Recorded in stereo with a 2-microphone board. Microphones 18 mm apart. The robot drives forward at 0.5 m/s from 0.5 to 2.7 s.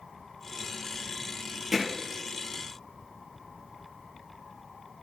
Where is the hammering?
15° right (ahead or behind), 4.5 m.